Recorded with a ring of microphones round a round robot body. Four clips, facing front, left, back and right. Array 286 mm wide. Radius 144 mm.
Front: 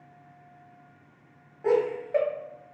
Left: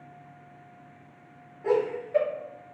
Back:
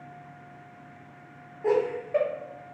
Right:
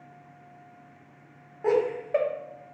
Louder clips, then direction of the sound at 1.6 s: Right 1 dB, front 1 dB; 95° right.